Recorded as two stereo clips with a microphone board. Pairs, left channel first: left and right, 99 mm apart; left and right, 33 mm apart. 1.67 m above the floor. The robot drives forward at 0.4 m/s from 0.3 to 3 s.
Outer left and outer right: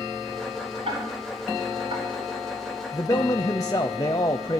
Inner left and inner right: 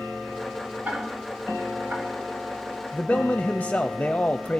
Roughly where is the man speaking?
Left.